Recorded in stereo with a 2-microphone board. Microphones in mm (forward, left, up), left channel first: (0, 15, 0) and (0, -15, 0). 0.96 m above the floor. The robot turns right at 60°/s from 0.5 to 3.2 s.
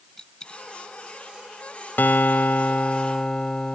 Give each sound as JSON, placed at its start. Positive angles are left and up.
{"t": 0.2, "sound": "a dropped coin", "side_deg": 25}
{"t": 2.0, "sound": "a guitar", "azimuth_deg": 80}